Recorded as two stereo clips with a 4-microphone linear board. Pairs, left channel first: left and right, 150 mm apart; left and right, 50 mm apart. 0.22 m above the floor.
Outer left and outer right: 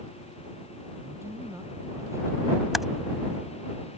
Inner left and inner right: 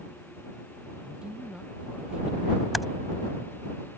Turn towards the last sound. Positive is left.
turn(degrees=0)  # may be behind; listen again after turning